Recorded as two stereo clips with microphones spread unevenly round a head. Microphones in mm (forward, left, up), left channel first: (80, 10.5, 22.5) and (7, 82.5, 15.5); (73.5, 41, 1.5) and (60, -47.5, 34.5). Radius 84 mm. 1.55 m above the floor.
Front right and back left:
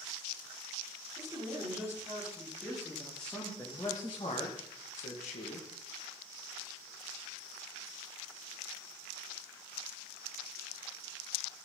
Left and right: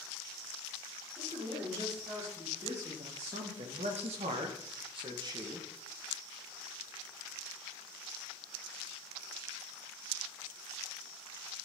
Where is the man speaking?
150° right, 5.5 m; by 5.7 s 45° right, 2 m.